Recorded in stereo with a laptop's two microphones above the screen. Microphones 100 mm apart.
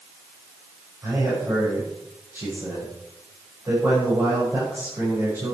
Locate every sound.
1.0 s a man speaking: 30° right (ahead or behind), 6.5 m